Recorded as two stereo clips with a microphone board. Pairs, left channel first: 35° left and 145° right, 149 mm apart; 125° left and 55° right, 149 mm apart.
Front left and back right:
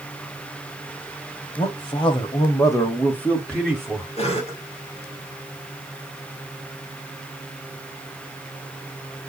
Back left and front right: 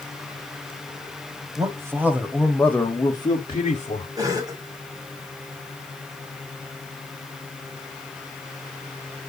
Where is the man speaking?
Straight ahead, 1.4 m; by 4.1 s 130° left, 1.5 m.